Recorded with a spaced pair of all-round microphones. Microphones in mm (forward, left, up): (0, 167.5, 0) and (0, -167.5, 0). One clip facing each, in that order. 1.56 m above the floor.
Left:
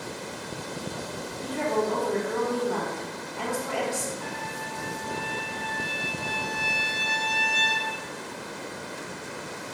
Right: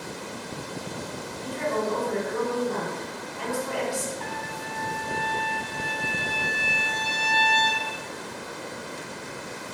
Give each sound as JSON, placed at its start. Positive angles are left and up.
{"t": 1.4, "sound": "a woman speaking", "side_deg": 80, "distance_m": 3.5}
{"t": 4.2, "sound": "a trumpet", "side_deg": -75, "distance_m": 1.4}